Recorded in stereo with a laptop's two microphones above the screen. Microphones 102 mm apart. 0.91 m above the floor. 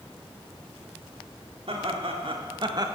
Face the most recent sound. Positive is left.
turn(degrees=-30)  # may be behind; listen again after turning